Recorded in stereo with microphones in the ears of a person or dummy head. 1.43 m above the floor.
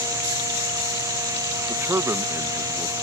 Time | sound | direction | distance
1.7 | a man speaking | 15° right (ahead or behind) | ?